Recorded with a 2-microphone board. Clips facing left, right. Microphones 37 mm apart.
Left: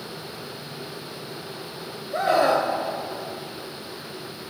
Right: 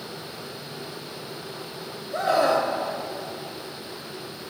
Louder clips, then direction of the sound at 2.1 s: Left 1 dB; 10° left (ahead or behind).